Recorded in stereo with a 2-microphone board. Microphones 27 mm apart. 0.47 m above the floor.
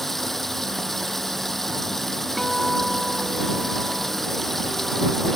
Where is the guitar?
10° left (ahead or behind).